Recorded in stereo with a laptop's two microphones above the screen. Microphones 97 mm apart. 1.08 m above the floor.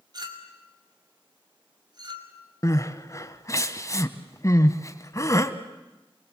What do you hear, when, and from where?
0.1 s a clink: 45° right (ahead or behind), 2.5 m
2.6 s crying: 35° left (ahead or behind), 1.1 m